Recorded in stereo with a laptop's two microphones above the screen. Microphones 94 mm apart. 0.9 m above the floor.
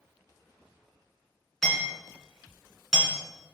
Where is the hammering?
Centre (ahead or behind), 2.5 m.